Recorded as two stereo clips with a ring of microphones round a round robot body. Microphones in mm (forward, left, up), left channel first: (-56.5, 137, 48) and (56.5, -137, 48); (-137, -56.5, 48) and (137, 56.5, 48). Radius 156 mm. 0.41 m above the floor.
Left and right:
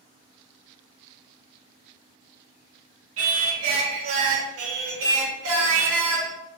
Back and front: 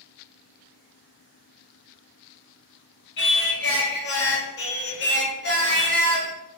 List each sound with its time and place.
3.2 s singing: 105° right, 0.8 m